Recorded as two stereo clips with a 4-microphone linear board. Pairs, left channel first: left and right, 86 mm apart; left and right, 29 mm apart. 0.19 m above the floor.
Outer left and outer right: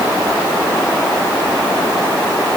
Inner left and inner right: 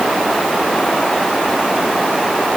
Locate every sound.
Only background noise.